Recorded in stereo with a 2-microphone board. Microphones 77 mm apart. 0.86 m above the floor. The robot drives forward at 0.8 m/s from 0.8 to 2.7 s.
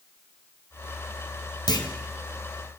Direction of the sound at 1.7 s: 60° left (ahead or behind).